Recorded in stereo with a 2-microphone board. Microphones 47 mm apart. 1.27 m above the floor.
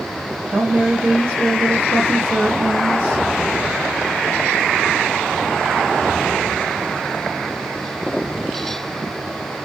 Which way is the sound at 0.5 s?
60° right (ahead or behind).